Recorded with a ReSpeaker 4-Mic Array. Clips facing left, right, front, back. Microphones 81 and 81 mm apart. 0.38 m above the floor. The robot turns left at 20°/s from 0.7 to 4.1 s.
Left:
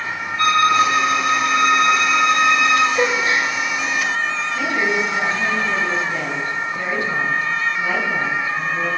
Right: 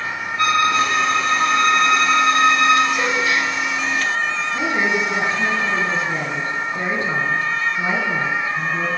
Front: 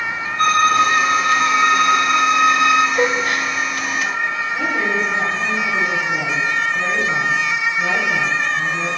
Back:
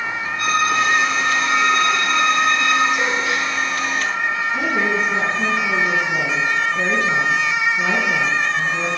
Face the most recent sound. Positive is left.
turn(degrees=-145)